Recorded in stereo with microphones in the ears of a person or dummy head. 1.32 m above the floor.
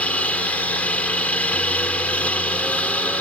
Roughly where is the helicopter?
Centre.